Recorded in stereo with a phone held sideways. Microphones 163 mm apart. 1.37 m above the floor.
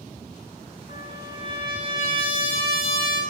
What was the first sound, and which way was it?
A trumpet, 35° right (ahead or behind).